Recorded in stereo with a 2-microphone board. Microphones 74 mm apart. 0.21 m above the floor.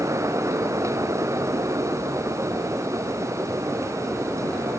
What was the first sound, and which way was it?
Only background noise.